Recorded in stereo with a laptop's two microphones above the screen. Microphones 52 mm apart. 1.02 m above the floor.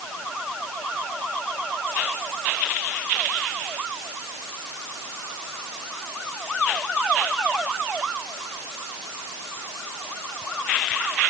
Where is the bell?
I don't hear a bell.